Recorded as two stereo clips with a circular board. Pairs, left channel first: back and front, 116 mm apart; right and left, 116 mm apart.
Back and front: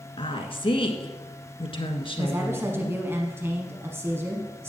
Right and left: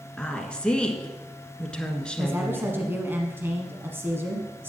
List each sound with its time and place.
0.2 s a woman speaking: 170° right, 1.5 m
2.2 s a woman speaking: 40° left, 1.1 m